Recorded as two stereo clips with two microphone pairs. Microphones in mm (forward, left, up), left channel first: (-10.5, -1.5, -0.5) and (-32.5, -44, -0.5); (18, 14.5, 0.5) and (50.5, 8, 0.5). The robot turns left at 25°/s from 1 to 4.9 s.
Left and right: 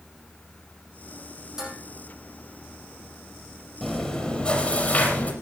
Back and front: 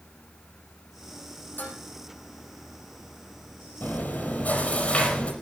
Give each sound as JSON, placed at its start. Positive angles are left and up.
{"t": 1.6, "sound": "dishes clattering", "azimuth_deg": 165, "distance_m": 5.0}
{"t": 3.8, "sound": "chewing", "azimuth_deg": 145, "distance_m": 4.5}